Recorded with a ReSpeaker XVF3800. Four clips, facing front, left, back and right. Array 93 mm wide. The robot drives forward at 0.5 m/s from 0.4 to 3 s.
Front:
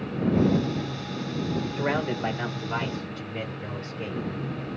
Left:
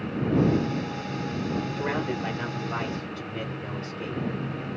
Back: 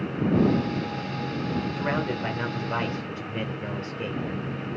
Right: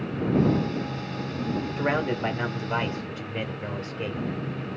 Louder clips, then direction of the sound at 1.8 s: Right 3 dB, front 3 dB; 55° right.